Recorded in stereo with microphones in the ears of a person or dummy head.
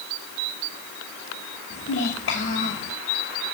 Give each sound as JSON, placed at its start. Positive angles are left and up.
{"t": 1.7, "sound": "a child speaking", "side_deg": 70, "distance_m": 3.0}